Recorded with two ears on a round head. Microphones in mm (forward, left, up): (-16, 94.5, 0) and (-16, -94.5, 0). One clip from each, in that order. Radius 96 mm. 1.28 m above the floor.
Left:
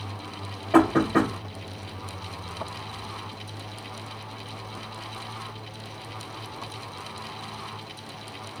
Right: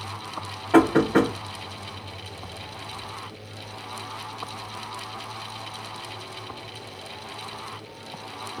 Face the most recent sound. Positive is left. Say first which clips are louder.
# right 2 dB
turn(degrees=-30)  # may be behind; listen again after turning